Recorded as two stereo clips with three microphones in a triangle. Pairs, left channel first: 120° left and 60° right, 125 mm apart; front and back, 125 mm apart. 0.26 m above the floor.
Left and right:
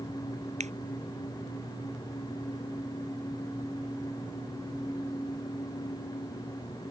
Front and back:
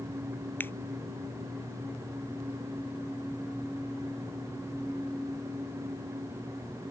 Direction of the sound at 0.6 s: 75° right.